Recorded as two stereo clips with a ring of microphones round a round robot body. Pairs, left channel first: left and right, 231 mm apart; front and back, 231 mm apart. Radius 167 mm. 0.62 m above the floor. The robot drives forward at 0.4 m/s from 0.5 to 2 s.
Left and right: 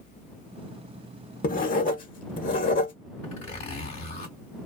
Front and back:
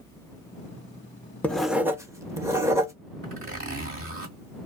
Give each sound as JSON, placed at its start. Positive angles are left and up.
{"t": 1.4, "sound": "writing", "azimuth_deg": 80, "distance_m": 0.8}
{"t": 3.2, "sound": "a zipper", "azimuth_deg": 150, "distance_m": 1.6}